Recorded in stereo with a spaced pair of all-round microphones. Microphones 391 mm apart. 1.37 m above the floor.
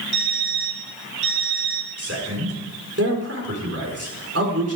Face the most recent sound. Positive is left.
turn(degrees=-35)  # may be behind; listen again after turning